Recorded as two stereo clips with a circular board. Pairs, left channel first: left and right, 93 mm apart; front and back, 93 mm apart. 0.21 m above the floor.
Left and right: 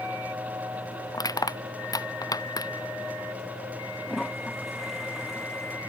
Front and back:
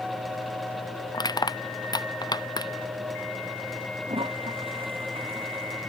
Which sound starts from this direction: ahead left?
Crushing, at 1.1 s.